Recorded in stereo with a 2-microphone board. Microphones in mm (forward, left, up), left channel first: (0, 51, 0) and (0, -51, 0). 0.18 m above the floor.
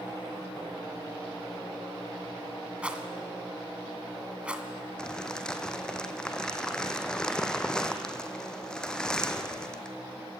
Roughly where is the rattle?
Centre.